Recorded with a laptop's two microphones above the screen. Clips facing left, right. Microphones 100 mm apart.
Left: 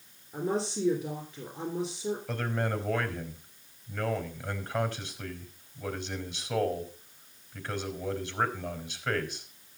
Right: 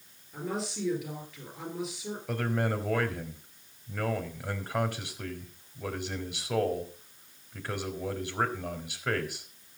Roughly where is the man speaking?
Centre.